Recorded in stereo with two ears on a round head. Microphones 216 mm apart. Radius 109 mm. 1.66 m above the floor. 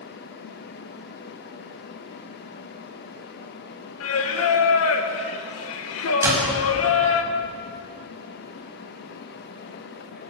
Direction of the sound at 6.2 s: 10° right (ahead or behind).